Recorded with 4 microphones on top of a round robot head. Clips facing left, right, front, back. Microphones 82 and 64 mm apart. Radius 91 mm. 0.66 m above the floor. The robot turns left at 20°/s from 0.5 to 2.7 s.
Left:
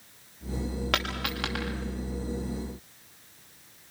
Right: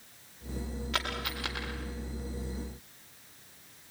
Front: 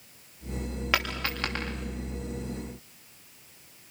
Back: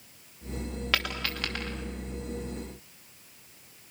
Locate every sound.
0.9 s a dropped coin: 75° left, 7.5 m; by 1.7 s 60° left, 7.5 m